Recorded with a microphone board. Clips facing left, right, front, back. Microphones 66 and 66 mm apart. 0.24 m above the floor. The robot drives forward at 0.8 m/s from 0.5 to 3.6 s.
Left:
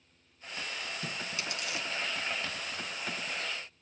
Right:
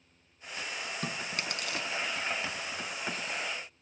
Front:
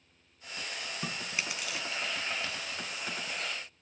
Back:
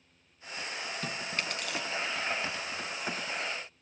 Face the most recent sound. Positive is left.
turn(degrees=-130)